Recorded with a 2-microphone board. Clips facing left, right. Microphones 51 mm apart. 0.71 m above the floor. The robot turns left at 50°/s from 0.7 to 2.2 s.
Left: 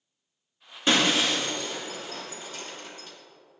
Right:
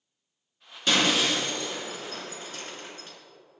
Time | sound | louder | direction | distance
0.9 | breaking glass | left 1 dB | 25° left (ahead or behind) | 1.9 m